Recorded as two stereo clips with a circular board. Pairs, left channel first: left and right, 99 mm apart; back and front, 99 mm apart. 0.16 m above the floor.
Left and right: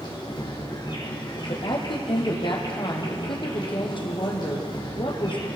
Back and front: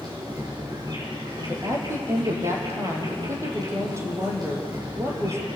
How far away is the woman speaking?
About 5.5 m.